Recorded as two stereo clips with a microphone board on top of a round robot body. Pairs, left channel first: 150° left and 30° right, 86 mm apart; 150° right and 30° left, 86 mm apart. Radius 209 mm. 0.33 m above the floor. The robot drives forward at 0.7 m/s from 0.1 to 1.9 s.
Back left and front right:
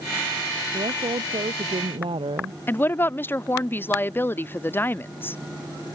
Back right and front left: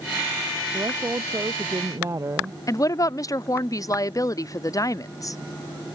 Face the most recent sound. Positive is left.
turn(degrees=-160)